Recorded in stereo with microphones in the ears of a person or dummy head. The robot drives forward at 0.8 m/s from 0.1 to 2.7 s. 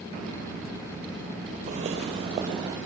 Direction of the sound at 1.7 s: 45° right (ahead or behind).